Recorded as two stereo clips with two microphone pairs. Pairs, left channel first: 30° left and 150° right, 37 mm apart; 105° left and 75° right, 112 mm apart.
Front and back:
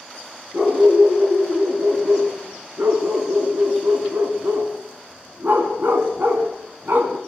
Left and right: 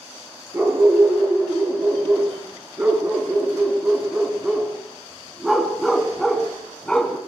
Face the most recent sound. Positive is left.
turn(degrees=-175)